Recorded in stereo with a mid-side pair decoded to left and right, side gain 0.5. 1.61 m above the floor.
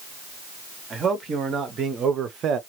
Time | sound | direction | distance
0.9 | a man speaking | 45° right | 1.7 m